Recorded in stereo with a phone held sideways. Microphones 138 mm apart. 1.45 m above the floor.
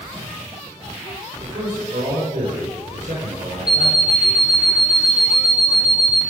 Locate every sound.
1.4 s a man speaking: 75° right (ahead or behind), 4.5 m
3.7 s an alarm clock: 30° left (ahead or behind), 2.5 m